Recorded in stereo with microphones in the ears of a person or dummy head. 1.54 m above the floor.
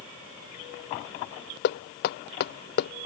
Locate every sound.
1.6 s knocking: 55° left (ahead or behind)